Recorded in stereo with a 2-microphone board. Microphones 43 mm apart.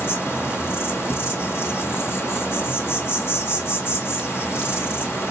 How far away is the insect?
About 1.7 m.